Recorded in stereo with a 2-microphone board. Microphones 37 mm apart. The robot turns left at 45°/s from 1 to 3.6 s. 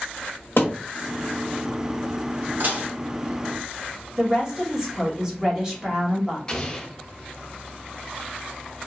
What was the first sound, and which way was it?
A thud, 70° left (ahead or behind).